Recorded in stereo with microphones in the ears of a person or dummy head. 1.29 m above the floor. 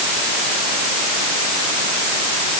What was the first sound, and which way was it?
Only background noise.